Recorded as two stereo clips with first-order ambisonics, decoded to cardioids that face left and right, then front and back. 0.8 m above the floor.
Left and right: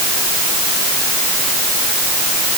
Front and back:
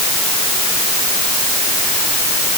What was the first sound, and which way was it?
Only background noise.